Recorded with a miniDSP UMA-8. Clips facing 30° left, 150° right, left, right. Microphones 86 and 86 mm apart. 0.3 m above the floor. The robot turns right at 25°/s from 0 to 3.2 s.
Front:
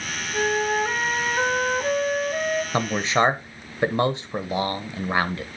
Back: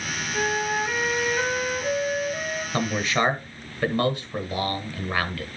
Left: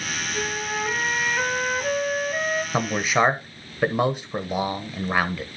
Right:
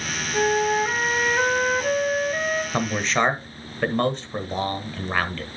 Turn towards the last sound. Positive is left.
turn(degrees=30)